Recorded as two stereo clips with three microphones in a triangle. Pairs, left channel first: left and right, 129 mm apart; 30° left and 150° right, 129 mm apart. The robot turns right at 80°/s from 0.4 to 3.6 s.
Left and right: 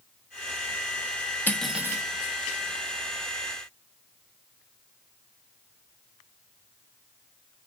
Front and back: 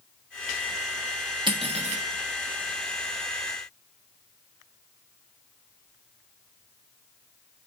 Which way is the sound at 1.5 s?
165° left.